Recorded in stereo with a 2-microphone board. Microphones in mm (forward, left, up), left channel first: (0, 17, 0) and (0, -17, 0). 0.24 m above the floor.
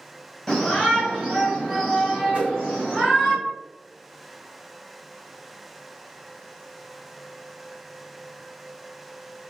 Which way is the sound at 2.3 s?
35° right (ahead or behind).